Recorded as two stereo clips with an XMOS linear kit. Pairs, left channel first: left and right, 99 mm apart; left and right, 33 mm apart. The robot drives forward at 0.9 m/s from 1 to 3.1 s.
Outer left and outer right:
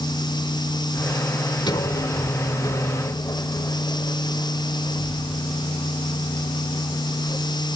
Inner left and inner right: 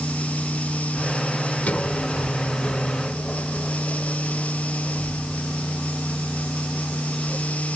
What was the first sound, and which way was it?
A sliding door, 50° left (ahead or behind).